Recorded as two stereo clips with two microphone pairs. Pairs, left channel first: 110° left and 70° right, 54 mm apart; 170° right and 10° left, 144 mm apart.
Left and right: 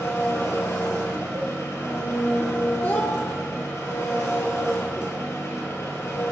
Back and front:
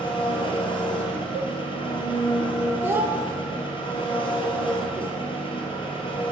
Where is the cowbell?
105° right, 2.5 m.